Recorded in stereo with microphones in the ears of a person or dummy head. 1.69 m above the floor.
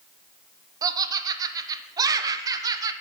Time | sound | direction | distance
0.8 | laughter | 20° right (ahead or behind) | 0.8 m